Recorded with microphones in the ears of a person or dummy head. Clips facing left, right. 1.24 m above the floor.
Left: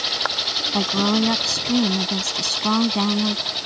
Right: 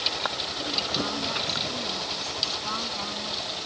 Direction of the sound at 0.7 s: 80° left.